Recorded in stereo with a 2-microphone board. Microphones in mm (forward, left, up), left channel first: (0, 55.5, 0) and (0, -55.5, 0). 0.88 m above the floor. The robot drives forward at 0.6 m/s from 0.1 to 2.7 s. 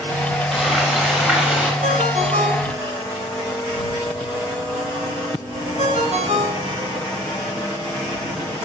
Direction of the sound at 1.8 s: 90° right.